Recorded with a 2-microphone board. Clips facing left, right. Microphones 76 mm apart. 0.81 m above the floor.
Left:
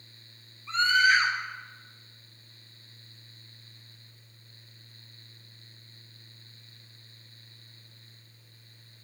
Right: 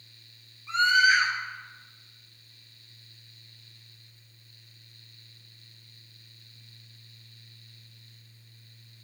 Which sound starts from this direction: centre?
A scream, at 0.7 s.